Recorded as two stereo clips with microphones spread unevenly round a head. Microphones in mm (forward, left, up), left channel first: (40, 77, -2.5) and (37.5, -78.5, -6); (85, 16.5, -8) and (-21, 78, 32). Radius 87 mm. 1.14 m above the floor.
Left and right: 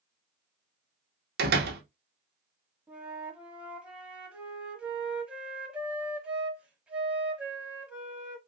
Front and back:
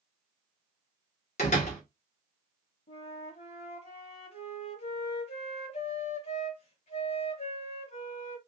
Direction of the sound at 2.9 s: 10° right.